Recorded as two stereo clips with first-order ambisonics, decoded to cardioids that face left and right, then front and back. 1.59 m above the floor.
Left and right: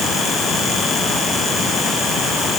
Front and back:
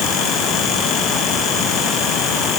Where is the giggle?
I don't hear a giggle.